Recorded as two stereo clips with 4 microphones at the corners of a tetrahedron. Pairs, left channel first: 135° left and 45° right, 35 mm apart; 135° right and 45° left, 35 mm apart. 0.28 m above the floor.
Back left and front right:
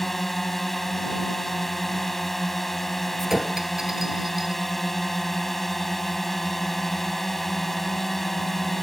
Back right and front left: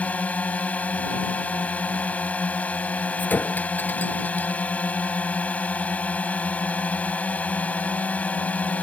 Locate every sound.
0.0 s a drone: 140° right
3.2 s a clink: 120° right